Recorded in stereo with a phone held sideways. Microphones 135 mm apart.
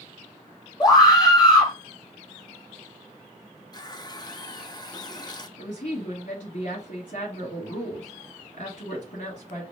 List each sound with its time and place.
0.8 s a scream: 30° left (ahead or behind), 1.8 m
3.7 s a running tap: 30° left (ahead or behind), 0.6 m
5.6 s a woman speaking: 65° left (ahead or behind), 1.8 m